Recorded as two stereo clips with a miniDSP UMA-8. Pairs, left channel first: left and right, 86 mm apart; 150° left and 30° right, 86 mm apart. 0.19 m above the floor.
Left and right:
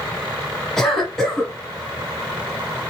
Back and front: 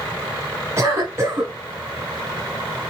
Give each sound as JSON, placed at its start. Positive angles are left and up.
{"t": 0.8, "sound": "a cough", "azimuth_deg": 10, "distance_m": 1.6}